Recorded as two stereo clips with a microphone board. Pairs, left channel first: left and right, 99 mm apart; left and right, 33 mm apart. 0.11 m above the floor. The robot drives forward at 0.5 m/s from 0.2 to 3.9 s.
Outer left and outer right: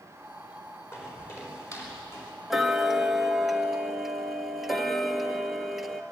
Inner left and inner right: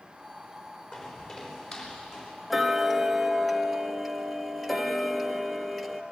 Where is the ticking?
5° right (ahead or behind), 1.1 m; by 6.0 s centre (ahead or behind), 1.5 m.